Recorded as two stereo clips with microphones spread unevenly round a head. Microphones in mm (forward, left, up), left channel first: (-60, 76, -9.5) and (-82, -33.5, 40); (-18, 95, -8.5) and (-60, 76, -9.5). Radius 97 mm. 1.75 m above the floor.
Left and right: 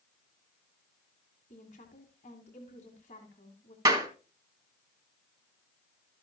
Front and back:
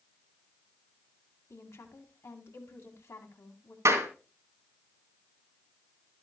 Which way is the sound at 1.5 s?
30° left.